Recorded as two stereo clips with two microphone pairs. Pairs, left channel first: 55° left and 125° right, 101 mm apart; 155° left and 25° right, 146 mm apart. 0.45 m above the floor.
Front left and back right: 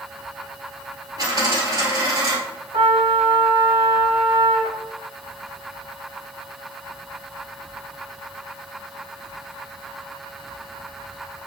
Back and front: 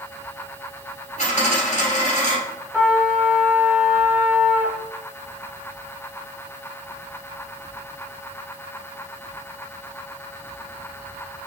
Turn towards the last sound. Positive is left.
turn(degrees=-110)